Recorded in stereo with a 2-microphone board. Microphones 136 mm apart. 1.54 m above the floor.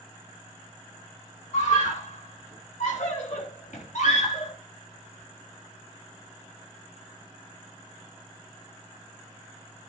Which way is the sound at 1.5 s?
65° left (ahead or behind).